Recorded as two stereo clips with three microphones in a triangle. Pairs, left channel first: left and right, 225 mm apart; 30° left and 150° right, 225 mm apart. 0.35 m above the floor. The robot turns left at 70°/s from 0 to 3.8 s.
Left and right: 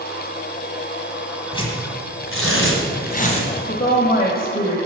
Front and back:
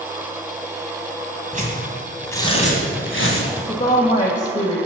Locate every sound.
1.5 s tearing paper: 160° left, 1.6 m; by 3.5 s 25° left, 1.6 m
3.7 s a woman speaking: 70° left, 1.1 m; by 4.8 s 60° left, 1.1 m